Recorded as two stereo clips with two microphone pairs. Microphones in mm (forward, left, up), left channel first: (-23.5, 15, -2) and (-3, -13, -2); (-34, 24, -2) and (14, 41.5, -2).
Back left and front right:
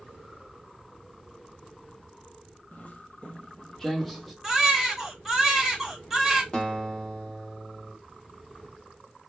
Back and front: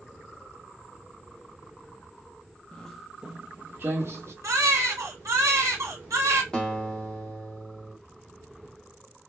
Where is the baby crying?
35° left, 1.4 m.